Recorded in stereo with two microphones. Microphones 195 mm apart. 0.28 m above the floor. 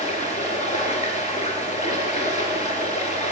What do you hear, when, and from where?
0.0 s running water: 35° left (ahead or behind), 1.1 m